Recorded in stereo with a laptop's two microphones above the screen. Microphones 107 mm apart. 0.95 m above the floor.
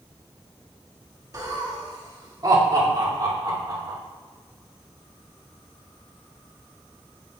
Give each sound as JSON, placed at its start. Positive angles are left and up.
{"t": 1.3, "sound": "laughter", "side_deg": -35, "distance_m": 1.7}